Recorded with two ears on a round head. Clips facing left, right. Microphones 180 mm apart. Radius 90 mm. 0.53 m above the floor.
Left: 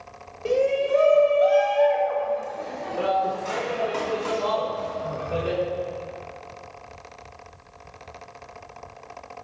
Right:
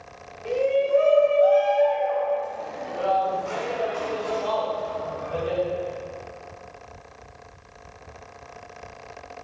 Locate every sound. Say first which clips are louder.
0.5 s a shout: even; 60° left (ahead or behind), 2 m; by 5.6 s 80° left, 5 m